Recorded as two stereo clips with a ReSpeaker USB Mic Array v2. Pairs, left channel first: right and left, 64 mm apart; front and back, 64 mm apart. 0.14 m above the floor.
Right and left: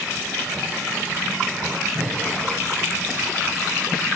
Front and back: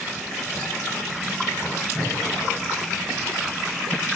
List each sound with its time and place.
1.9 s breathing: 95° left, 2.5 m